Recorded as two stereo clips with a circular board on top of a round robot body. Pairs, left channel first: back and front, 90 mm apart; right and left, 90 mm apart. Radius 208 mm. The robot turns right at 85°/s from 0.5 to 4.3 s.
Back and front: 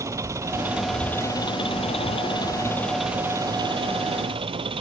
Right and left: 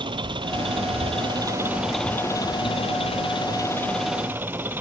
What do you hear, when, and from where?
0.0 s an engine running: 60° left; by 4.8 s 20° left